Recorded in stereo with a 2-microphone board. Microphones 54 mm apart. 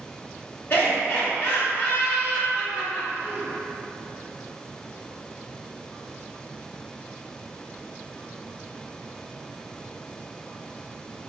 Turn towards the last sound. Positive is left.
turn(degrees=35)  # may be behind; listen again after turning